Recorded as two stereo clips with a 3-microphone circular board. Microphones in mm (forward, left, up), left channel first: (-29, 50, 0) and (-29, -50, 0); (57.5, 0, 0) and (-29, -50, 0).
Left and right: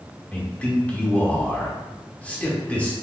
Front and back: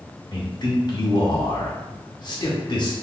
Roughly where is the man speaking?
Ahead.